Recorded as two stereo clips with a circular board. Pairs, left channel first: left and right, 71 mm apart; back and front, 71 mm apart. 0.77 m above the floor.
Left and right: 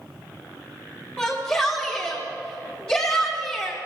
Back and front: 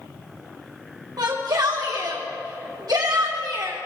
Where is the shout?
30° left, 2 m.